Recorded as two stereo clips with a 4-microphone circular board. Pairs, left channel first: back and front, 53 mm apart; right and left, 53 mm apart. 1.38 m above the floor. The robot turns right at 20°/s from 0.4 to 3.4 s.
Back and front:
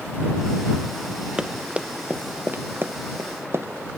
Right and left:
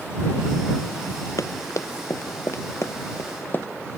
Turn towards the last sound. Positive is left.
turn(degrees=-40)